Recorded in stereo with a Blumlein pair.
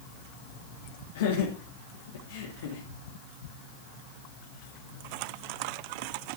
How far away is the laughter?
About 3 m.